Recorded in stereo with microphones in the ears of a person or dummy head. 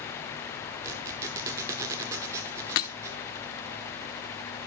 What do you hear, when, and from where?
0.8 s a squeak: 15° right (ahead or behind), 1.0 m
2.8 s breaking glass: 25° left (ahead or behind), 0.8 m